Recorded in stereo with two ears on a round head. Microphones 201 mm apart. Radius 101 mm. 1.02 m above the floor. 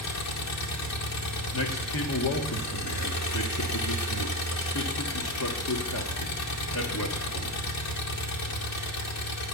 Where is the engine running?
85° left, 2 m.